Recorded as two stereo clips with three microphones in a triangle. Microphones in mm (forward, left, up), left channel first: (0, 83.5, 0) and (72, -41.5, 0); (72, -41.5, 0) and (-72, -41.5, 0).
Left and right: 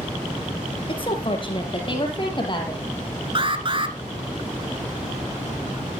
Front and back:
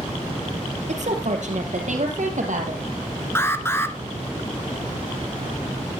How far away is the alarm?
About 1.4 m.